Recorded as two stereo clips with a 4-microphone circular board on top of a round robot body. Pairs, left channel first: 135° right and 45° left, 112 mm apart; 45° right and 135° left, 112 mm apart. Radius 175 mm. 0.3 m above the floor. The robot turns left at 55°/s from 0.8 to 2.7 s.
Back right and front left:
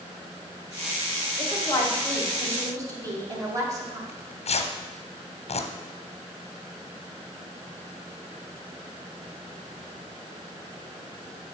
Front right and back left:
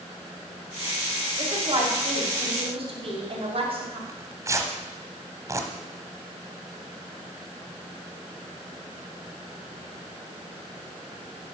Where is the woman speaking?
175° left, 2.5 m; by 4.0 s 105° left, 2.5 m.